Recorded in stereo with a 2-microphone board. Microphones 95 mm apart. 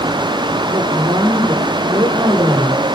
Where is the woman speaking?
70° right (ahead or behind), 6 m.